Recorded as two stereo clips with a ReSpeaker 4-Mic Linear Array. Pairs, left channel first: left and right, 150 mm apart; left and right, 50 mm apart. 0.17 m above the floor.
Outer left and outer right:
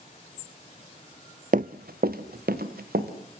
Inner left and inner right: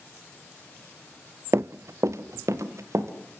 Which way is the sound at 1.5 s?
65° right (ahead or behind).